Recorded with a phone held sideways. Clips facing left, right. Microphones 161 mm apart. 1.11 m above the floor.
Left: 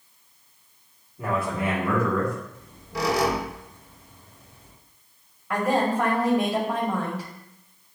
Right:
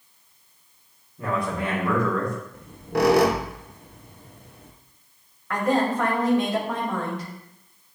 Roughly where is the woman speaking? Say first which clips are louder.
Right 1 dB; centre.